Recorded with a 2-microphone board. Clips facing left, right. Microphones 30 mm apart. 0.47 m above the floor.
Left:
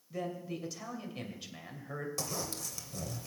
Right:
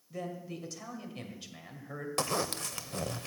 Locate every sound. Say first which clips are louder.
0.1 s a man speaking: left 1 dB; 5° left (ahead or behind), 2.5 m
2.2 s a zipper: right 6 dB; 60° right (ahead or behind), 0.6 m